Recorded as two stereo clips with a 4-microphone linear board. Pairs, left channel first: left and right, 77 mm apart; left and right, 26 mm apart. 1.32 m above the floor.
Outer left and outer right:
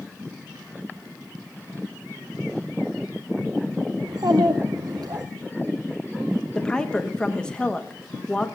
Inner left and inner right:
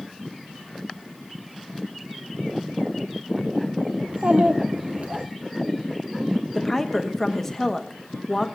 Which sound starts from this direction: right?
A child speaking, at 4.0 s.